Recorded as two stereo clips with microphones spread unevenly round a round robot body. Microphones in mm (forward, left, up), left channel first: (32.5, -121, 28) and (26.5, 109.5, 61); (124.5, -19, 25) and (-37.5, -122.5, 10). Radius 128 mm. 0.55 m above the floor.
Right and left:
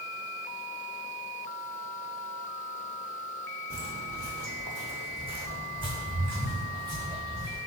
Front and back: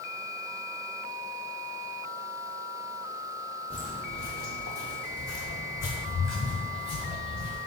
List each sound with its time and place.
3.7 s footsteps: 110° left, 0.6 m; by 7.6 s 20° left, 3 m